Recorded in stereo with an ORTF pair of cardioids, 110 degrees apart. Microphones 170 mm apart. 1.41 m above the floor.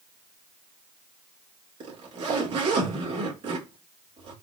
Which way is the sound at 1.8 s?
40° right.